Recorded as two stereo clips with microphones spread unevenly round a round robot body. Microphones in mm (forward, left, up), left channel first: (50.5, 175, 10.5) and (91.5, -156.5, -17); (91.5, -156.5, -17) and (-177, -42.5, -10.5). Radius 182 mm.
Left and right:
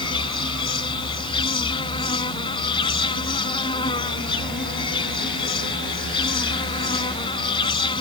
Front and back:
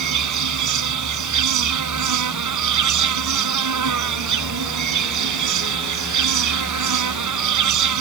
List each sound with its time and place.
0.0 s an insect: 175° left